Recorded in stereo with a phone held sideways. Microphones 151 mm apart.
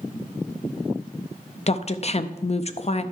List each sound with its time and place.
1.7 s a woman speaking: 45° left (ahead or behind), 0.6 m